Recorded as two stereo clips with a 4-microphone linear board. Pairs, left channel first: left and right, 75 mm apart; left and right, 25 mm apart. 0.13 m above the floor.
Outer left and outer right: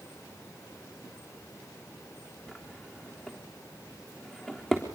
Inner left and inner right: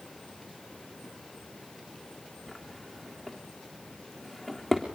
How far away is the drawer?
About 3.5 m.